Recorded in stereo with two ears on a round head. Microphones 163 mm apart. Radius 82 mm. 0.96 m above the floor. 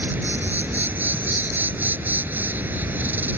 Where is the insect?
10° right (ahead or behind).